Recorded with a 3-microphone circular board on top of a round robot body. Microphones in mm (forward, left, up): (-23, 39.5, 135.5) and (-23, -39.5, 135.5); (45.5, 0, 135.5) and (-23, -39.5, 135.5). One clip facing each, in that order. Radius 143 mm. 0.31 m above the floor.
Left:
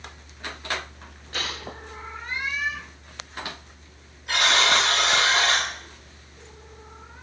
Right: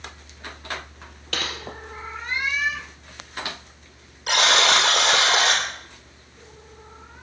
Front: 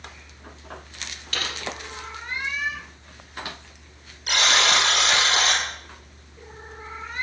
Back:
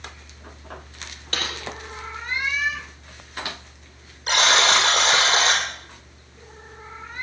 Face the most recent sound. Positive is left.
turn(degrees=-95)